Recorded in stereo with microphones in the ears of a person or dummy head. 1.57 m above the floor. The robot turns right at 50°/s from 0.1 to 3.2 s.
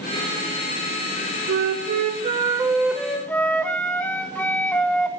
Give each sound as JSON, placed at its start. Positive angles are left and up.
{"t": 1.5, "sound": "a flute", "azimuth_deg": -75, "distance_m": 0.9}